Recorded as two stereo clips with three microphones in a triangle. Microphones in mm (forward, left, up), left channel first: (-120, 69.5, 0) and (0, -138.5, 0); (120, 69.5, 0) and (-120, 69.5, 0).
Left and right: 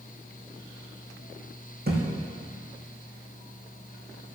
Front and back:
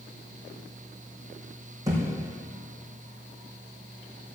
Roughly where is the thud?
Right.